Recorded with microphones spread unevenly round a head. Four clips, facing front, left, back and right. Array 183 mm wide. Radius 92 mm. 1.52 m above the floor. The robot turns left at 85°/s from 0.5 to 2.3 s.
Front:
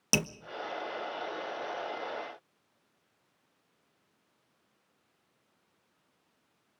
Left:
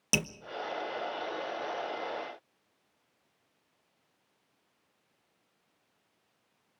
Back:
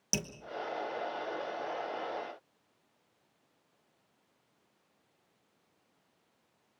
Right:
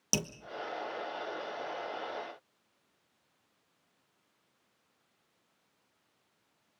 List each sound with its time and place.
0.1 s dripping: 5° right, 0.8 m